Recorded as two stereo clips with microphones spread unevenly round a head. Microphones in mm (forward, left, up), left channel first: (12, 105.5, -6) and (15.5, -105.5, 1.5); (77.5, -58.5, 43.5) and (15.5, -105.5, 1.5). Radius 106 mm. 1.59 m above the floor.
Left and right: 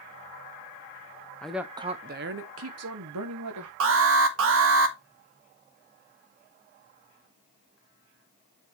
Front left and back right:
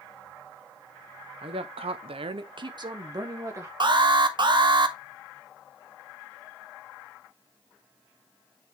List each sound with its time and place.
1.4 s a woman speaking: 175° left, 0.7 m; by 3.7 s 90° right, 1.5 m
3.8 s an alarm: 105° right, 1.5 m